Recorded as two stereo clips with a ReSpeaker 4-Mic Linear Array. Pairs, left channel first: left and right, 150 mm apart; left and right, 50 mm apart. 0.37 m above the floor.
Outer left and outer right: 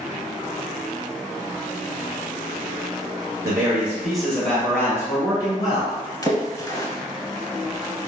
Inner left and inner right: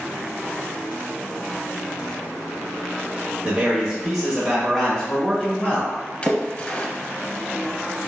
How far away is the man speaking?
About 1.1 m.